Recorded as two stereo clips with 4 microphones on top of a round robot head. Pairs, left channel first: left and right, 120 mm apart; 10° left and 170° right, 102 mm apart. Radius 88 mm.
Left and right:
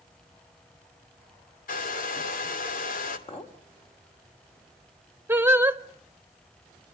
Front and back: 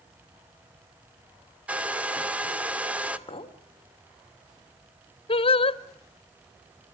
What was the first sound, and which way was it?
A hair dryer, 110° left.